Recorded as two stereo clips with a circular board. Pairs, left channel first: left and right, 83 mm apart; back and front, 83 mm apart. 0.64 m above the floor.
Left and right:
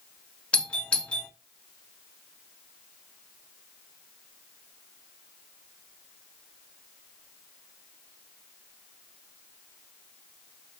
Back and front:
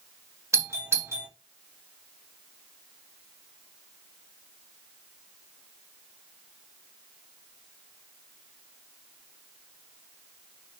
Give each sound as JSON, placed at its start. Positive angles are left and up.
{"t": 0.5, "sound": "a doorbell", "azimuth_deg": 20, "distance_m": 1.9}